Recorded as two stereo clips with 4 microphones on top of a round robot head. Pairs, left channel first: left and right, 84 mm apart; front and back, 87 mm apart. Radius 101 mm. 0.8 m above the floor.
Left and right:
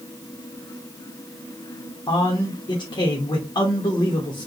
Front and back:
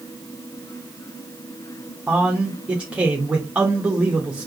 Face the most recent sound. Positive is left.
turn(degrees=105)